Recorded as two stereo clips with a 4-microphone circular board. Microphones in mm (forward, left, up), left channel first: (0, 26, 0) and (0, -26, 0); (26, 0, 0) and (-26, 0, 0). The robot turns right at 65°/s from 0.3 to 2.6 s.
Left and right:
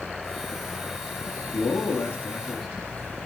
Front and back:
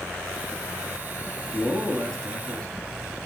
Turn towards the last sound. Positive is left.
turn(degrees=175)